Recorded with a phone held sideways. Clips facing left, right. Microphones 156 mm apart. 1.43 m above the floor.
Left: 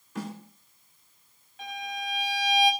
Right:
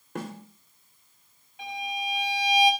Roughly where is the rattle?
No rattle in this recording.